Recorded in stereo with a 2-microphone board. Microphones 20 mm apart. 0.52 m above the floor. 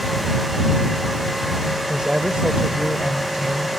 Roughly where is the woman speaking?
Right.